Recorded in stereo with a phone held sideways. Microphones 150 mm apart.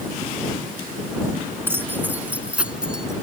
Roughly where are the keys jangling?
Centre.